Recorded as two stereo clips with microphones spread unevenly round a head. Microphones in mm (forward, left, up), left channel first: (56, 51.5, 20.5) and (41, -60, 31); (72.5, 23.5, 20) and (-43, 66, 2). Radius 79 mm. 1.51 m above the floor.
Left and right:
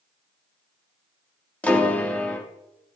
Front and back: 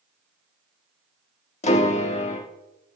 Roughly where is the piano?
Ahead.